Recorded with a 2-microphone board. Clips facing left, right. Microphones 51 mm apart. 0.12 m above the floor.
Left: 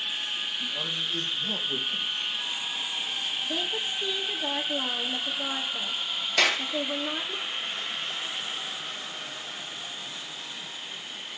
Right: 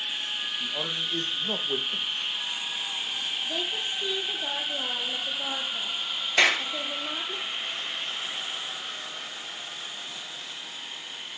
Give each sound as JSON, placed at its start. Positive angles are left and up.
{"t": 0.6, "sound": "a man speaking", "side_deg": -60, "distance_m": 4.0}
{"t": 3.4, "sound": "a woman speaking", "side_deg": 0, "distance_m": 3.0}
{"t": 6.4, "sound": "a clap", "side_deg": -25, "distance_m": 2.5}